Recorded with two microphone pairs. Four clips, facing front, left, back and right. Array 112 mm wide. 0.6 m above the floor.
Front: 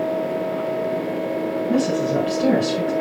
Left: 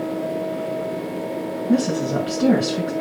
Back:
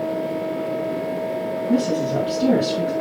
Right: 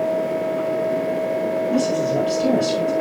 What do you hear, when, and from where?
1.7 s a woman speaking: 90° left, 6 m